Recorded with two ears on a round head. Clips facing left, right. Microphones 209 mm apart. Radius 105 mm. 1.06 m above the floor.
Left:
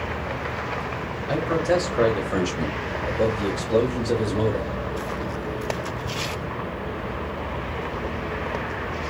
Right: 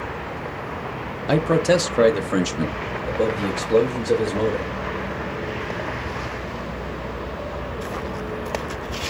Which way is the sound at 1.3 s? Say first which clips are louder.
Right 4 dB; 65° right (ahead or behind).